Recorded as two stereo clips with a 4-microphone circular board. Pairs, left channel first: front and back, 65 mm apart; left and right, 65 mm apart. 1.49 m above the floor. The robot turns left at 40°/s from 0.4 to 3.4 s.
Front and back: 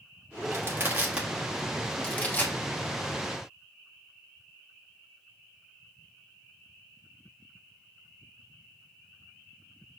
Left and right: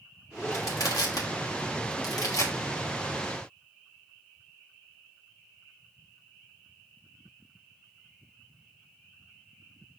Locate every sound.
0.5 s crushing: 135° left, 1.3 m; by 2.5 s 50° left, 1.3 m